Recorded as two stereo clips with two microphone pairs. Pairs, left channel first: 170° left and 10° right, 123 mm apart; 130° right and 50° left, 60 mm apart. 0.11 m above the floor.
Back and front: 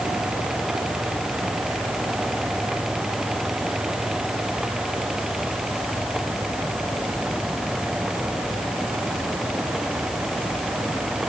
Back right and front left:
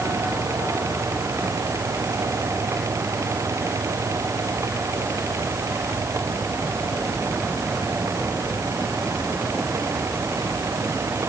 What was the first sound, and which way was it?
Only background noise.